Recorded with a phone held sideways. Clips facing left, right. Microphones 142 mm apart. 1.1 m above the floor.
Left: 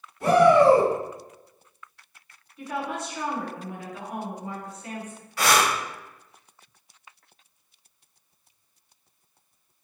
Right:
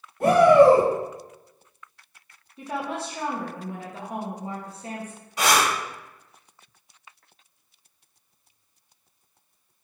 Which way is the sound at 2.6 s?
30° right (ahead or behind).